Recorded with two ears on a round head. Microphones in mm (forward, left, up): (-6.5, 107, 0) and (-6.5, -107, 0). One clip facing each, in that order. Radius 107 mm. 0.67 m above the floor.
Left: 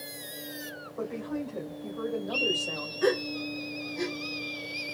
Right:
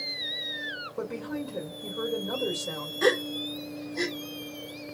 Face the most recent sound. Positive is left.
turn(degrees=-70)  # may be behind; listen again after turning